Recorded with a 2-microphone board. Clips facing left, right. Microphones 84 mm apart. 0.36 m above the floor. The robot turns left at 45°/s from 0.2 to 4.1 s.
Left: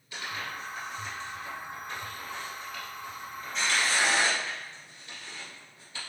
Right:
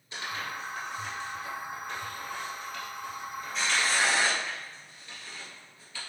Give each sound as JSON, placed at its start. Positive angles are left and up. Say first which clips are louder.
{"t": 0.1, "sound": "tearing paper", "louder": "right 1 dB", "side_deg": -25, "distance_m": 1.9}